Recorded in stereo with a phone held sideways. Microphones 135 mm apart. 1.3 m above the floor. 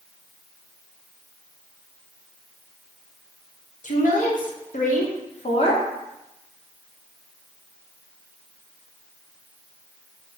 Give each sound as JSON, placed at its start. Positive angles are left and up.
{"t": 3.8, "sound": "a woman speaking", "side_deg": 70, "distance_m": 1.0}